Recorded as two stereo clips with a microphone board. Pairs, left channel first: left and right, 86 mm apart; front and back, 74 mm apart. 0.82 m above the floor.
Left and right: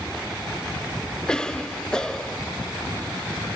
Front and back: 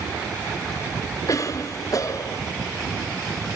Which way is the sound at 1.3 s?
10° left.